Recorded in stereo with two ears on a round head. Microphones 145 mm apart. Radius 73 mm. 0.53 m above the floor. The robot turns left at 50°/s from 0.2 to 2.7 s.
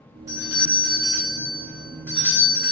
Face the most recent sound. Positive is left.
turn(degrees=20)  # may be behind; listen again after turning